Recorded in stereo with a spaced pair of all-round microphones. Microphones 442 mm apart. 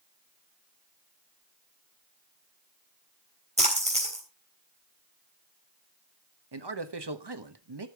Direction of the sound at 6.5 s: 65° right (ahead or behind).